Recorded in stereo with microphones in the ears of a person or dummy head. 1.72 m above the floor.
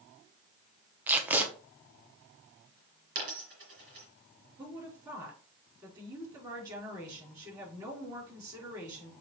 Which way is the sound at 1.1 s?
10° right (ahead or behind).